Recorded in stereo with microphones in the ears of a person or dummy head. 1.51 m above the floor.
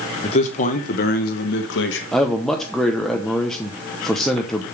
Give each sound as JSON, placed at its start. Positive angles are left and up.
{"t": 0.2, "sound": "a man speaking", "side_deg": 35, "distance_m": 1.0}
{"t": 2.1, "sound": "a man speaking", "side_deg": 0, "distance_m": 0.9}